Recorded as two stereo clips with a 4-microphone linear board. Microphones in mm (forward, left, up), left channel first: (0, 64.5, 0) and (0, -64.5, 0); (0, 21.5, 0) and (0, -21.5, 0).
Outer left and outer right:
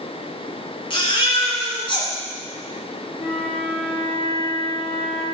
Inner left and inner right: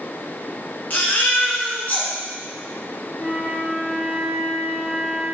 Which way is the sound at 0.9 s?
40° left (ahead or behind).